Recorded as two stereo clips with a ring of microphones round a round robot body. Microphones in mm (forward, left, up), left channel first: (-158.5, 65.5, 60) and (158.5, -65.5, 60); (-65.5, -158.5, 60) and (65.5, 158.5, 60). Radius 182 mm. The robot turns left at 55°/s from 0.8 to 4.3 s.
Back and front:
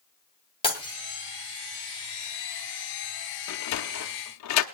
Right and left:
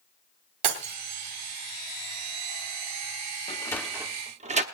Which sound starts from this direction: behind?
A sliding door, at 3.5 s.